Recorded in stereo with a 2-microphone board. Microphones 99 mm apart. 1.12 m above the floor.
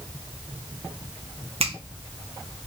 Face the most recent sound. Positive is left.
turn(degrees=-80)